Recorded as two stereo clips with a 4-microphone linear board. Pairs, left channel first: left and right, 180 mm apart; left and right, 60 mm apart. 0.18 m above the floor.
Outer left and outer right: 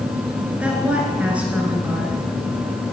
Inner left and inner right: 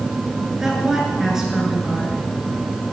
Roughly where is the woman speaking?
Centre.